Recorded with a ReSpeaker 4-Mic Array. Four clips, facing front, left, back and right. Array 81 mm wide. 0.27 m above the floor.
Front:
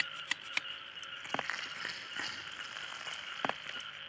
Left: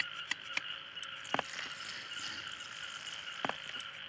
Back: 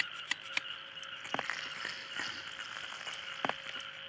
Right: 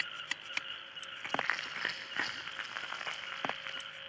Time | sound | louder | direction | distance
1.2 | crushing | right 3 dB, even | 90° right | 3.5 m